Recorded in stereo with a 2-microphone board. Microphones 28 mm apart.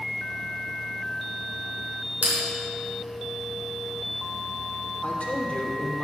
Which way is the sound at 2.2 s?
85° right.